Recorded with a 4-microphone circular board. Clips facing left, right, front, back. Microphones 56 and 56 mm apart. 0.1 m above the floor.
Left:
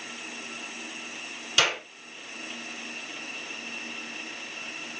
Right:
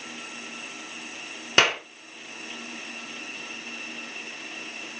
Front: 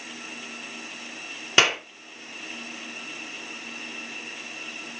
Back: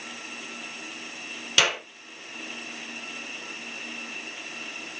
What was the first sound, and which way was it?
A clap, 55° right.